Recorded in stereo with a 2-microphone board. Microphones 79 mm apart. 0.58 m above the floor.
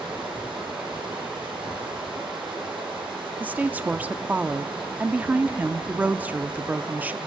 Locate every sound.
0.0 s running water: 90° right, 6 m
3.4 s a woman speaking: 20° right (ahead or behind), 0.7 m